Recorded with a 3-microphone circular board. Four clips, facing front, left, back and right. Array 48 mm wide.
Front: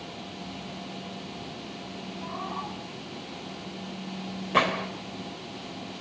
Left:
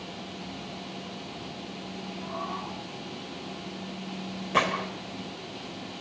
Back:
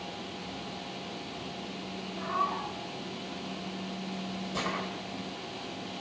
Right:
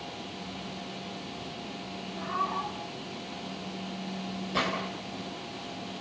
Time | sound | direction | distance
2.1 | a cat meowing | 145° right | 6 m
4.5 | a gunshot | 30° left | 2.5 m